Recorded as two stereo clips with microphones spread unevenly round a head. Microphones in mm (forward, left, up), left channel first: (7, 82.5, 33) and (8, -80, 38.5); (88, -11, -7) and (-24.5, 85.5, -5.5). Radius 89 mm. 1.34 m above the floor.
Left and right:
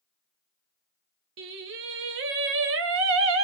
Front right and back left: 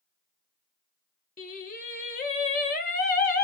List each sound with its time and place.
1.4 s singing: 90° right, 0.7 m